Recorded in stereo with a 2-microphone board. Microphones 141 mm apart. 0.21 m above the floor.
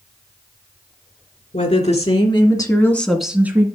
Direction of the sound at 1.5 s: 55° left (ahead or behind).